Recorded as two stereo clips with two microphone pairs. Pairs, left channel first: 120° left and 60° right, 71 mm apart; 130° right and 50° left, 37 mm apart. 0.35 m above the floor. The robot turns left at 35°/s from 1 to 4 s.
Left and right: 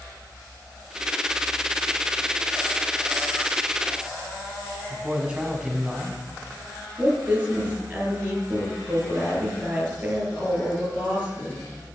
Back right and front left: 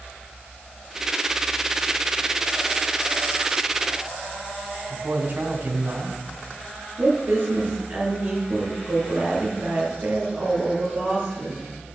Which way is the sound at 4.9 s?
15° left.